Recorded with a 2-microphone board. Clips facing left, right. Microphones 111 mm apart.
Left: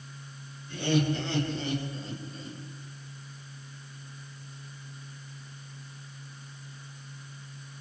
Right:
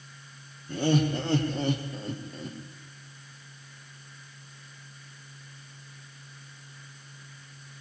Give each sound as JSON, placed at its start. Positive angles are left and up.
{"t": 0.7, "sound": "laughter", "side_deg": -45, "distance_m": 7.0}